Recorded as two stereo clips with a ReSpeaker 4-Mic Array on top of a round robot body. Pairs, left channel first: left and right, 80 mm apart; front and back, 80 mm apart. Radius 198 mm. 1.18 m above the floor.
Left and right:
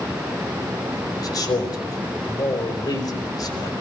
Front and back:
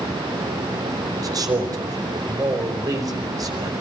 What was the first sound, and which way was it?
A man speaking, 135° left.